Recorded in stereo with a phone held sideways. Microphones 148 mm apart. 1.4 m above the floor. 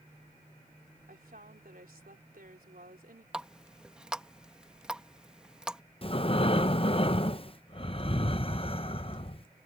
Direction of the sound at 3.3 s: 5° right (ahead or behind).